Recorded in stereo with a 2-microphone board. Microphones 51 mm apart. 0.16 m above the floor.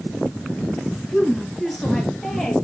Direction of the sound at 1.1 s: Centre (ahead or behind).